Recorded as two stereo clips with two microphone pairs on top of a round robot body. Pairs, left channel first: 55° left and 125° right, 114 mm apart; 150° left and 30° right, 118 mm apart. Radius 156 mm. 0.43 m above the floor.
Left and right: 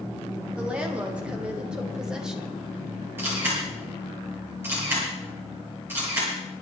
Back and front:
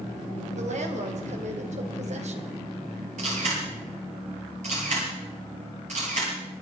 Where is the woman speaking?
45° right, 4 m; by 2.5 s 40° right, 2.5 m.